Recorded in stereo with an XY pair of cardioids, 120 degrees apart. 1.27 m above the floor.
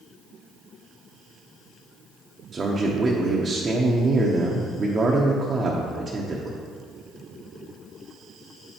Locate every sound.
2.5 s a man speaking: 25° right, 0.8 m